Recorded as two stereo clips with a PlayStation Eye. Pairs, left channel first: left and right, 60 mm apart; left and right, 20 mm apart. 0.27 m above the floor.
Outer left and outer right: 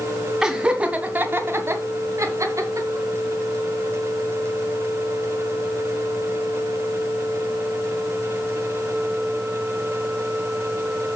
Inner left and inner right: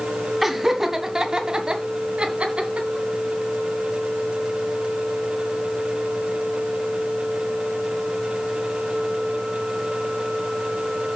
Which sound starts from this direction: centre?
Laughter, at 0.4 s.